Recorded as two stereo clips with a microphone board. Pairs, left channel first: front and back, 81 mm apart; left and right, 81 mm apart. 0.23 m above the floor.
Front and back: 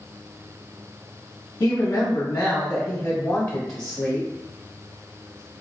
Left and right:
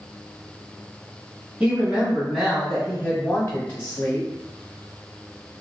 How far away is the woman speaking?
About 1.3 m.